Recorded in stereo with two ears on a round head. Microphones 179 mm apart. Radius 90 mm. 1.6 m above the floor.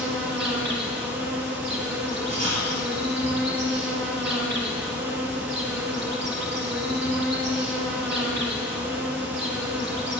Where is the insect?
55° right (ahead or behind), 2.5 m.